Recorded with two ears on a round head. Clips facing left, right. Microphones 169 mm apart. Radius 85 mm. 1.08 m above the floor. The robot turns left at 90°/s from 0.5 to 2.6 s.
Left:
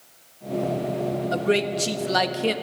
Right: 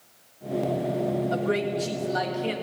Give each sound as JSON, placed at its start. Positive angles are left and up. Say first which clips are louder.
{"t": 1.3, "sound": "a man speaking", "louder": "left 3 dB", "azimuth_deg": 160, "distance_m": 1.5}